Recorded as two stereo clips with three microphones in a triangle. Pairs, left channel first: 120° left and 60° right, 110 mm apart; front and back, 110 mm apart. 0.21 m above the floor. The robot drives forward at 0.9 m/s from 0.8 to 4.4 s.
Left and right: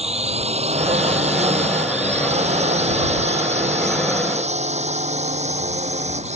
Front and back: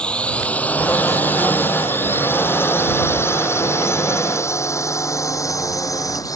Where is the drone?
80° right; by 6.4 s 55° right.